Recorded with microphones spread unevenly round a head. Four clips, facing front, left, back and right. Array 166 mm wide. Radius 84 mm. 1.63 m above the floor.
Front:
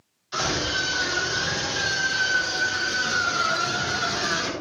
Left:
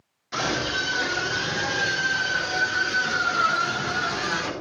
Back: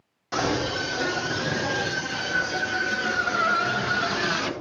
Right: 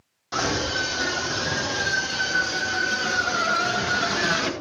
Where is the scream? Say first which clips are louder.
Right 1 dB, back 2 dB; 155° right, 5 m; by 4.5 s 105° right, 2.5 m.